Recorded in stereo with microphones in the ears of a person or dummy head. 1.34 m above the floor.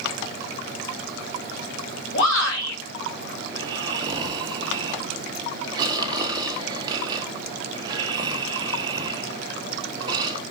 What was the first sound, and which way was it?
A shout, 80° left.